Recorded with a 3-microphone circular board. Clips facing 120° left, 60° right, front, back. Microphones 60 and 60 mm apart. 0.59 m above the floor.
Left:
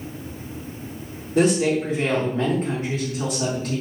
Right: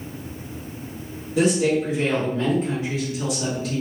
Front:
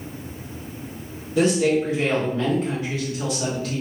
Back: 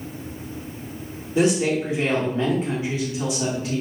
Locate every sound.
1.4 s a woman speaking: 125° left, 1.3 m